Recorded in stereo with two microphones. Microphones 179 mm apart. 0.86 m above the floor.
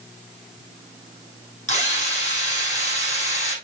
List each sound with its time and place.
1.7 s a drill: 35° left (ahead or behind), 5.5 m